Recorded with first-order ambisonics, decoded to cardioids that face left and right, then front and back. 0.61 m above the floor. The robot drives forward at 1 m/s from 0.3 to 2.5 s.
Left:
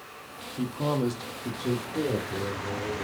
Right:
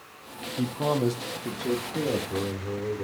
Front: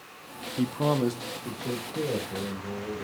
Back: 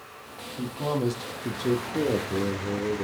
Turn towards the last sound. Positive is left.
turn(degrees=-175)